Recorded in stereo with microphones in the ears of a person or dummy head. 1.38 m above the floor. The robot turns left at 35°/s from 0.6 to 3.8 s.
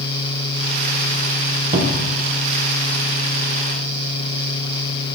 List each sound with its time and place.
1.7 s a cupboard door: 40° right (ahead or behind), 0.8 m; by 2.2 s 55° right (ahead or behind), 0.8 m